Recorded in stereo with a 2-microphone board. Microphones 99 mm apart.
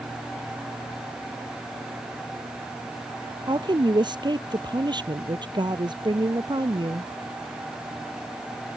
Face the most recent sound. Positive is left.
turn(degrees=-45)  # may be behind; listen again after turning